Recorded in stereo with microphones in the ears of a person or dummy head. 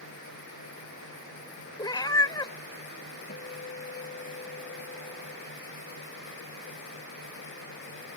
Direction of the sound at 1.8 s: 25° left (ahead or behind).